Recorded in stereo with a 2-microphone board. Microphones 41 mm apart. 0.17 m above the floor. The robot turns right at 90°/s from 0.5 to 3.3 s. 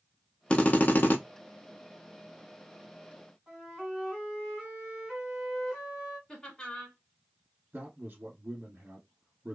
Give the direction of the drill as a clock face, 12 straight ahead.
11 o'clock.